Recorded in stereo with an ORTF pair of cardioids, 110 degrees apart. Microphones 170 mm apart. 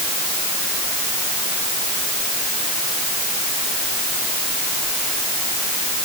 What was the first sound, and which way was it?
Only background noise.